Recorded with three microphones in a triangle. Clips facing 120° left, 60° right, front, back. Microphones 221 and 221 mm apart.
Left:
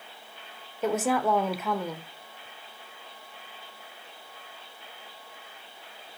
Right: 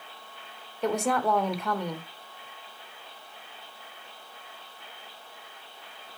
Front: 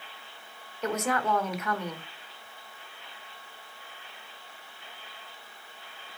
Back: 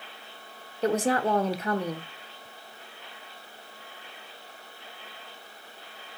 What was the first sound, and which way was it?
A woman speaking, 155° right.